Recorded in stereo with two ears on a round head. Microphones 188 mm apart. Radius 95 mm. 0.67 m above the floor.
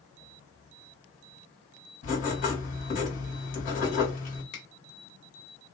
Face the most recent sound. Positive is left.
turn(degrees=40)  # may be behind; listen again after turning